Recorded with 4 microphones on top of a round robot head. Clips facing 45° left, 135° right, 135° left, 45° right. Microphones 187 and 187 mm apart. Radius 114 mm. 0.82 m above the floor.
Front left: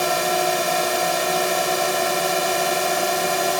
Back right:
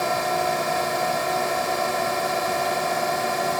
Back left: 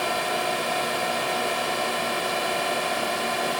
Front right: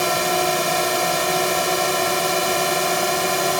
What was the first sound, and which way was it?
A drone, 10° right.